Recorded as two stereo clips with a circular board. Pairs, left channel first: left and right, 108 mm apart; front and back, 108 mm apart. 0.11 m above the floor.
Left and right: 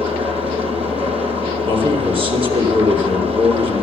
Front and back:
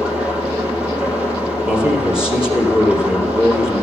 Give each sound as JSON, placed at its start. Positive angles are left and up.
{"t": 0.0, "sound": "an engine running", "azimuth_deg": -100, "distance_m": 2.5}
{"t": 1.6, "sound": "a man speaking", "azimuth_deg": -100, "distance_m": 3.0}